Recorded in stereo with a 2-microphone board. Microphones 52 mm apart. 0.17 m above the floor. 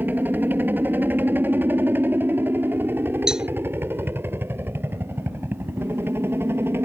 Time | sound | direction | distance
0.0 | a helicopter | 35° right (ahead or behind) | ?
3.3 | a cowbell | 10° right (ahead or behind) | ?